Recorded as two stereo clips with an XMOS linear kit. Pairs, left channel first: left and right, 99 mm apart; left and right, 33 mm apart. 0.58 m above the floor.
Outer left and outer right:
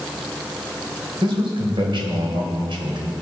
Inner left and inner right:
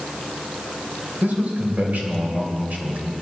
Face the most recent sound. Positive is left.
turn(degrees=-60)  # may be behind; listen again after turning